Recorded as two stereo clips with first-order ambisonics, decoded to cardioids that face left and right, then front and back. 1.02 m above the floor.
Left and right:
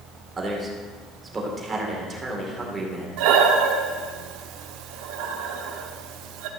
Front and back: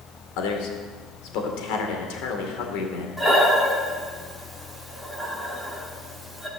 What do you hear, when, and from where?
0.4 s a man speaking: 20° right, 2.5 m
3.2 s breathing: 90° right, 1.1 m